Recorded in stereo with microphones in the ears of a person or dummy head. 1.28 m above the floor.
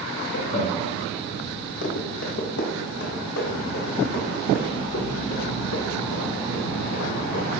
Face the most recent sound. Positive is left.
turn(degrees=75)  # may be behind; listen again after turning